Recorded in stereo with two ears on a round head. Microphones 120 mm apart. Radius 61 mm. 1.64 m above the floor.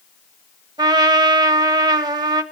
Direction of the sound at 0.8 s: 30° right (ahead or behind).